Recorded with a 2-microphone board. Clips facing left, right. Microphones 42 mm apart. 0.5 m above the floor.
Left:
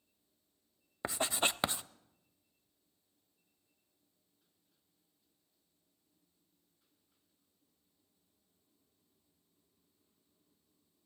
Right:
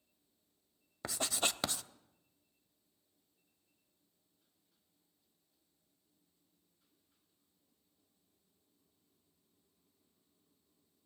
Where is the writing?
20° left (ahead or behind), 0.6 m.